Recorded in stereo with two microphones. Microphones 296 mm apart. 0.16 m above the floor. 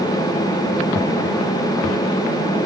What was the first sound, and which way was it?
Only background noise.